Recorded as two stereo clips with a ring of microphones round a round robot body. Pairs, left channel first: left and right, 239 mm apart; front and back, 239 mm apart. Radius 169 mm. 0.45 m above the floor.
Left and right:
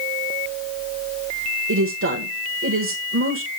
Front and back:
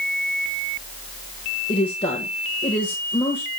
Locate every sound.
1.7 s a woman speaking: 75° right, 1.5 m